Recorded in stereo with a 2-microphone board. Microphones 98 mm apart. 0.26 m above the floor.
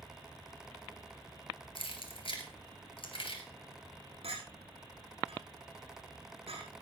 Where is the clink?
80° right, 6.5 m.